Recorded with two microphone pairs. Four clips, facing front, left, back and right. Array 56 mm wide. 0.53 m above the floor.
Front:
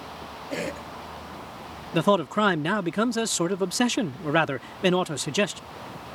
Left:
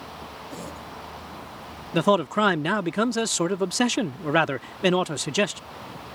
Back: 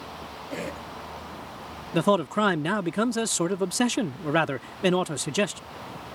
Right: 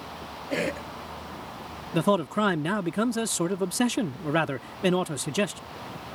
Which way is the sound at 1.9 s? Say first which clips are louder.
Left 3 dB, front 1 dB; 70° left.